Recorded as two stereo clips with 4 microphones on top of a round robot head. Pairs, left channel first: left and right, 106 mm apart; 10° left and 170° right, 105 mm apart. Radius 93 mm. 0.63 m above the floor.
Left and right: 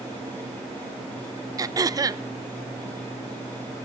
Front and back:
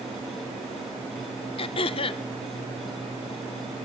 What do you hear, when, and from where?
1.6 s throat clearing: 30° right, 0.6 m